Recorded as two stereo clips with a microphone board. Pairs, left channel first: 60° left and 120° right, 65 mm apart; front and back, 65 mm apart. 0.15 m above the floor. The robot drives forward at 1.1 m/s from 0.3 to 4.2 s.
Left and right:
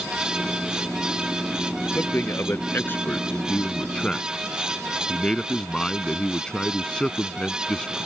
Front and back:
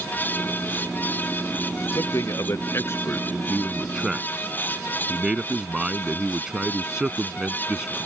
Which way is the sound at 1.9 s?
15° left.